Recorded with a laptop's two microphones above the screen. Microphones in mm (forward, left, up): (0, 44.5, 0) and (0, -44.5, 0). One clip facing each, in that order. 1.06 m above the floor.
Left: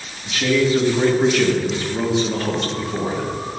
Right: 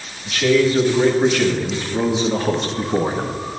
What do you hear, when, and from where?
0.2 s a man speaking: 15° left (ahead or behind), 1.8 m; by 3.4 s 45° right (ahead or behind), 0.8 m